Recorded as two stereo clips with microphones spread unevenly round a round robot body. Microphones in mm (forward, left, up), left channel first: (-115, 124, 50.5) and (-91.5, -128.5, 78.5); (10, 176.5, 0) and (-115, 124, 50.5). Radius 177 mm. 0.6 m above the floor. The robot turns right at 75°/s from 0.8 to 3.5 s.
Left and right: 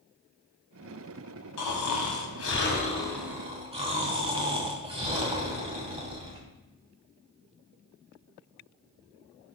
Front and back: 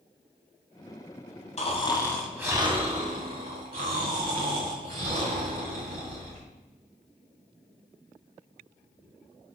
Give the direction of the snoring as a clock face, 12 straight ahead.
10 o'clock.